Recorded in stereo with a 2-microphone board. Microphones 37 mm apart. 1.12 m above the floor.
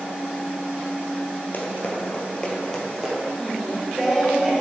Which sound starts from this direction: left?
Running footsteps, at 1.5 s.